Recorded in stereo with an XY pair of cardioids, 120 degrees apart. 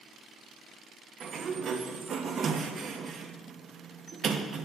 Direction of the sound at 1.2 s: 50° right.